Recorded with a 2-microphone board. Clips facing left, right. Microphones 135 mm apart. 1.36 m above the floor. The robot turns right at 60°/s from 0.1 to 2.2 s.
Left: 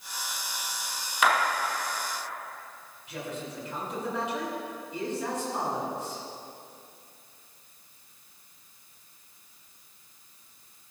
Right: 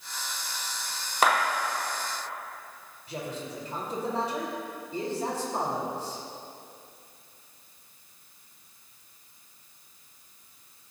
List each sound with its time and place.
1.2 s a clap: 40° right (ahead or behind), 5 m; by 1.4 s 50° right (ahead or behind), 5 m
3.1 s a man speaking: 40° right (ahead or behind), 4.5 m